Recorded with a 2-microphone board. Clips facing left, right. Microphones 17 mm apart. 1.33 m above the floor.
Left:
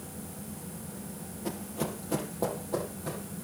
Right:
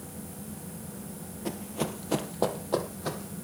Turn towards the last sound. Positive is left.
turn(degrees=-40)  # may be behind; listen again after turning